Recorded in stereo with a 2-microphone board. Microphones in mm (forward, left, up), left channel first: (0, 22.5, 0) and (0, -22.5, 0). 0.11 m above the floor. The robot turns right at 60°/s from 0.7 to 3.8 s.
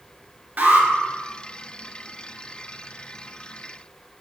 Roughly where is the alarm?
Right.